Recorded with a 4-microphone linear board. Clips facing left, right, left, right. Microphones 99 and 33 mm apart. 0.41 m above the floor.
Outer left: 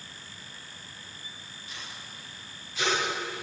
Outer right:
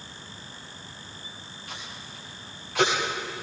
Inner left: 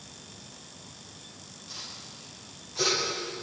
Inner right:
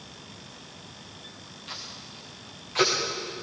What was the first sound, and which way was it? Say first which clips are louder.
Tape being pulled: outer right 3 dB, inner right 3 dB; 70° right (ahead or behind).